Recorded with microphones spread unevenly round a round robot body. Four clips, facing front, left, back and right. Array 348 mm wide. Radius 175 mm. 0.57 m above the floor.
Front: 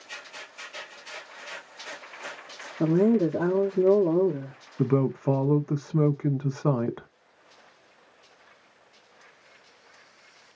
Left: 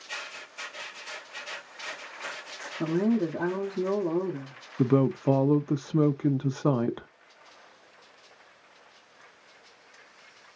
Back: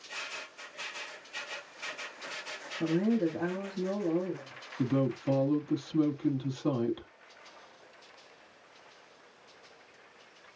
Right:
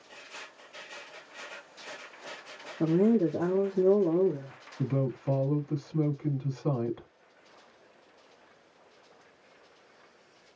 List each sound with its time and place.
2.8 s a woman speaking: 10° right, 1.1 m
4.8 s a woman speaking: 55° left, 0.9 m